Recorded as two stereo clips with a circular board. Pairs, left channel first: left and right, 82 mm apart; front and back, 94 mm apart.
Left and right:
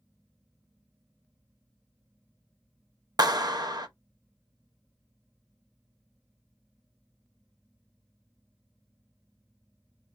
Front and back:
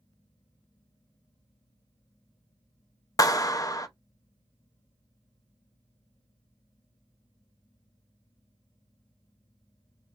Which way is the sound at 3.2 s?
50° right.